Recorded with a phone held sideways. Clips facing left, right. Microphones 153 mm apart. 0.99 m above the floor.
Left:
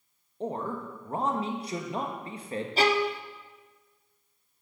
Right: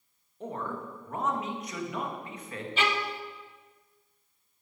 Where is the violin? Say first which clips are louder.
Left 6 dB; 35° left (ahead or behind), 0.6 m.